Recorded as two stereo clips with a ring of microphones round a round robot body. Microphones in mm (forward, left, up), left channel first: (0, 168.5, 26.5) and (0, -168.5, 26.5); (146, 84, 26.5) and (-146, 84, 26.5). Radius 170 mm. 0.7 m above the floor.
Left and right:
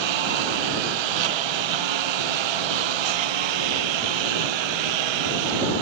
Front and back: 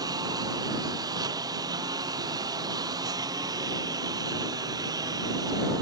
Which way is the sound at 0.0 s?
100° right.